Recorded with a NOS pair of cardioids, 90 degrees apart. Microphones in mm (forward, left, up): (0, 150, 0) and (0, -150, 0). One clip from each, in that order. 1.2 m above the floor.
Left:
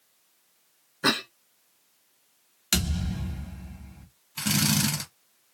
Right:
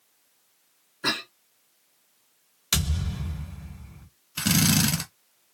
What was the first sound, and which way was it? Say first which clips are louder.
A cough: left 2 dB; 25° left.